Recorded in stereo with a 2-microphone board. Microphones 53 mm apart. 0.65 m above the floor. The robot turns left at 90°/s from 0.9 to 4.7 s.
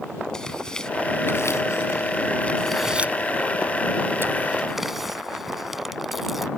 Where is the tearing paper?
10° left (ahead or behind); by 6.5 s 5° right (ahead or behind).